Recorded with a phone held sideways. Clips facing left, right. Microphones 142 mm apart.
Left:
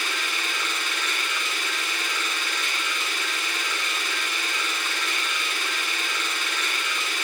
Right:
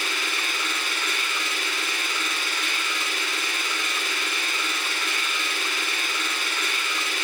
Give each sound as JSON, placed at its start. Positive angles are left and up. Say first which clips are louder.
{"t": 0.0, "sound": "a machine running", "louder": "right 1 dB", "side_deg": -10, "distance_m": 1.5}